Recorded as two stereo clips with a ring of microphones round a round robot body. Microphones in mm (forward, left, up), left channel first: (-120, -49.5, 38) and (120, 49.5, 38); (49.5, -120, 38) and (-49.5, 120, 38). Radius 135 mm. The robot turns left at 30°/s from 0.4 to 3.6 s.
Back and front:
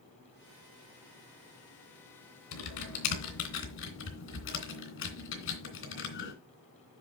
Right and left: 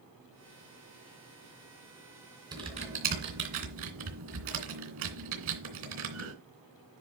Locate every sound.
2.5 s typing on a keyboard: 170° right, 3 m; by 6.3 s 155° left, 3 m